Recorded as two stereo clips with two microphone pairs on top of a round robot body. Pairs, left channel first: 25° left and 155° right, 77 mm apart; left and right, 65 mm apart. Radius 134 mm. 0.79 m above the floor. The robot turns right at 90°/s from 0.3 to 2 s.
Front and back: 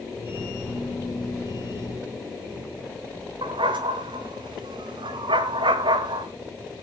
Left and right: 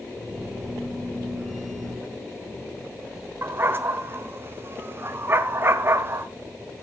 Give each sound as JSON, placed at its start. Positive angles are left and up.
{"t": 3.4, "sound": "a dog barking", "azimuth_deg": -145, "distance_m": 1.2}